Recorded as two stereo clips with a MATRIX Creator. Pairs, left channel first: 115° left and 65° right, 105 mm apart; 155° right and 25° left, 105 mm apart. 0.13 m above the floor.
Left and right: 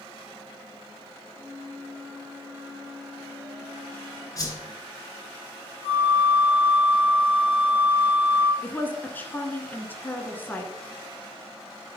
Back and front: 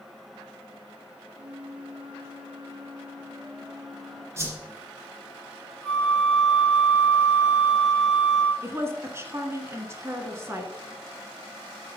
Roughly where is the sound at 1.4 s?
Ahead.